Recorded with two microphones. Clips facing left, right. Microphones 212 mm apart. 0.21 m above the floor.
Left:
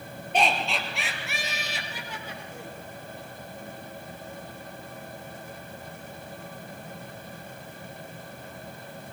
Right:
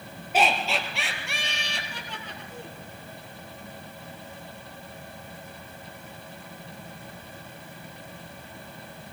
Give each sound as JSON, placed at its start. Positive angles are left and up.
{"t": 0.3, "sound": "laughter", "side_deg": -5, "distance_m": 5.5}